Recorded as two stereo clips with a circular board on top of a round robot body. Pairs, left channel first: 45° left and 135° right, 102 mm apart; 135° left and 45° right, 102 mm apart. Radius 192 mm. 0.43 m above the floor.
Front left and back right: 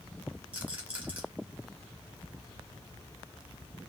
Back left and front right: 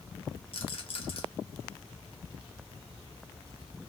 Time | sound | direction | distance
0.5 | a rattle | 150° left | 1.3 m